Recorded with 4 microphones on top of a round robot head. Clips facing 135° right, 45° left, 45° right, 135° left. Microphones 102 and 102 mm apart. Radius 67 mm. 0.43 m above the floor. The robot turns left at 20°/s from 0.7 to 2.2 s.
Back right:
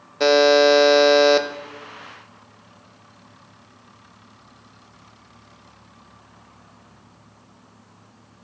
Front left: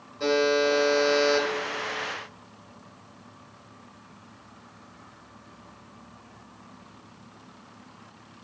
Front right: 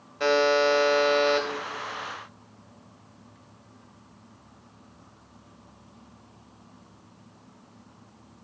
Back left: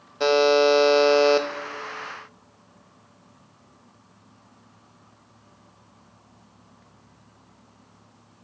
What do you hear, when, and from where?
0.2 s a buzzer: 155° right, 0.6 m; by 1.5 s 170° right, 0.6 m